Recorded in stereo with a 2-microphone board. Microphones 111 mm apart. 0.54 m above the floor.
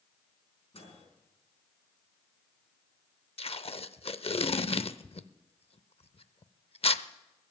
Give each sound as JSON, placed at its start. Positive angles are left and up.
{"t": 0.7, "sound": "a microwave", "side_deg": 65, "distance_m": 4.5}
{"t": 3.4, "sound": "tape being pulled", "side_deg": 60, "distance_m": 0.6}